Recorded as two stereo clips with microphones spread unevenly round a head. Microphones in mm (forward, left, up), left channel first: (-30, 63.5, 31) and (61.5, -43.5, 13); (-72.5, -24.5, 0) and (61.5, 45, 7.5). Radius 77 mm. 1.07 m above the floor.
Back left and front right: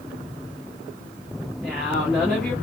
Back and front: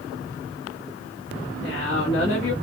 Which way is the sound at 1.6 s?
135° right.